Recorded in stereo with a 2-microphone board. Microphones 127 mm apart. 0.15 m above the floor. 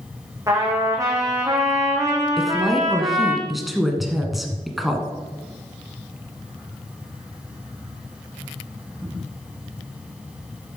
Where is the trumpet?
25° right (ahead or behind), 2.5 m.